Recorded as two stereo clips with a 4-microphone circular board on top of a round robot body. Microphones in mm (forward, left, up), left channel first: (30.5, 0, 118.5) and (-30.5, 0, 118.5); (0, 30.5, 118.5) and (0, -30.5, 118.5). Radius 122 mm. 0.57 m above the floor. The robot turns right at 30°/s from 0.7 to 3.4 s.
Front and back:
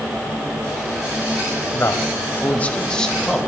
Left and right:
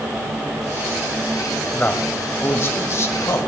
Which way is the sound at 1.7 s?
35° left.